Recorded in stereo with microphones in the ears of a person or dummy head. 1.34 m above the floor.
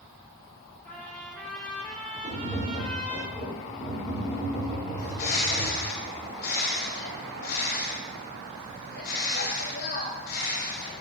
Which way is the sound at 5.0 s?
55° left (ahead or behind).